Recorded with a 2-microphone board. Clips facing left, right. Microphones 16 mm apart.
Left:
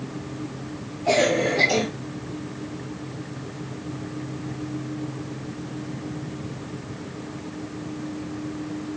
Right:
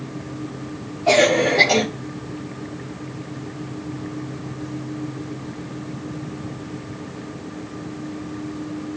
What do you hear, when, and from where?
1.1 s a cough: 25° right (ahead or behind), 2.5 m